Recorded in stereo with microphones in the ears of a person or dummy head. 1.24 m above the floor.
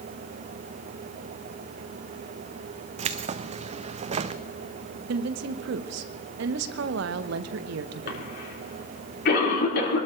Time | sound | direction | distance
3.0 | keys jangling | 35° right (ahead or behind) | 0.7 m
5.1 | a woman speaking | 75° right (ahead or behind) | 0.8 m
8.1 | a cough | 55° left (ahead or behind) | 4 m